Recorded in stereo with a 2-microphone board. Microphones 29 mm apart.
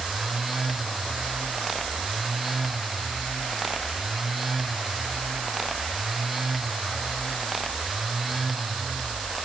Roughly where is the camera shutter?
I don't hear a camera shutter.